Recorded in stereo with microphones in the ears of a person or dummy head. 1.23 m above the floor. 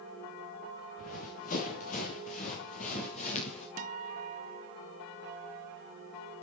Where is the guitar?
45° right (ahead or behind), 0.7 m.